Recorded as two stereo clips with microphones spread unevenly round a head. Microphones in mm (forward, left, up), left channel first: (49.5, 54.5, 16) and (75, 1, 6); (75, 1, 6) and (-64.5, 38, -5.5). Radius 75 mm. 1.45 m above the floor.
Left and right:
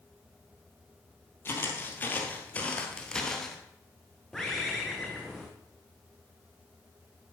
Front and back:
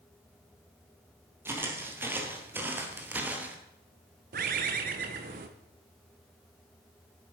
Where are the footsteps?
90° left, 2 m; by 3.6 s 95° left, 1.4 m.